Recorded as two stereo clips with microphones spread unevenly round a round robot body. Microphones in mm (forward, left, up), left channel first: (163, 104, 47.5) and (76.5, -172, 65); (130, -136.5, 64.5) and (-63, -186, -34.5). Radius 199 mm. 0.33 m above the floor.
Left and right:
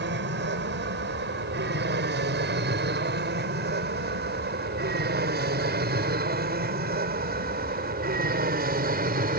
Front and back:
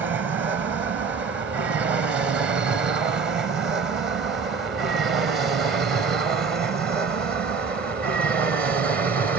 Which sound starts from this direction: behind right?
An aircraft, at 0.0 s.